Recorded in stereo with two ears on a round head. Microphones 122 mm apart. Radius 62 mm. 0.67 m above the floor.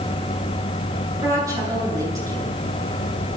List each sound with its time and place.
1.1 s a woman speaking: 25° right (ahead or behind), 9.5 m